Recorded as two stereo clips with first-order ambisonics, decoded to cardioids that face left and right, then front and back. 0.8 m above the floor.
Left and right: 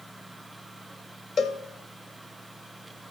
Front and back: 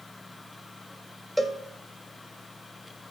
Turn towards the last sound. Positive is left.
turn(degrees=90)